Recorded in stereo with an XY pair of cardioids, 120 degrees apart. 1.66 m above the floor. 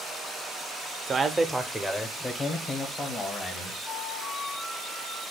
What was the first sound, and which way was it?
A man speaking, 40° right.